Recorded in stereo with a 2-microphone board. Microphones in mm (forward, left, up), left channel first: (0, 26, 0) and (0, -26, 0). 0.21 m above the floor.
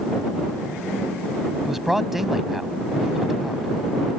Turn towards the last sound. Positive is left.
turn(degrees=-5)  # may be behind; listen again after turning